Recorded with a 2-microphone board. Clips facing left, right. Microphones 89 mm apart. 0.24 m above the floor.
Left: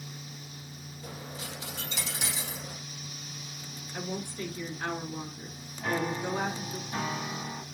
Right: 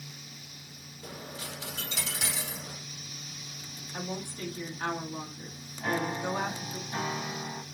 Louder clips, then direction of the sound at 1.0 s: Even; 70° right (ahead or behind).